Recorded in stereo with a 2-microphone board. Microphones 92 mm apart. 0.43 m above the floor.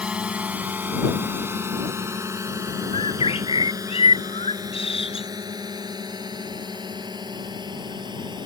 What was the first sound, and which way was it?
A drone, 10° right (ahead or behind).